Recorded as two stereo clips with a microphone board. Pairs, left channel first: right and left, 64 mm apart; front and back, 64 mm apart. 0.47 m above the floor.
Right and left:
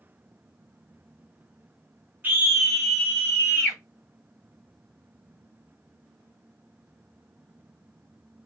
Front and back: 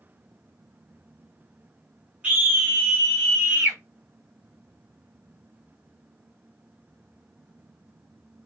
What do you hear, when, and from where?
2.2 s a scream: 125° left, 0.9 m; by 3.8 s 120° right, 1.1 m